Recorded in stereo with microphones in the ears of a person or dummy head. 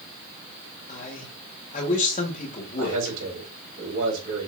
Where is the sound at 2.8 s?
80° right, 3.5 m.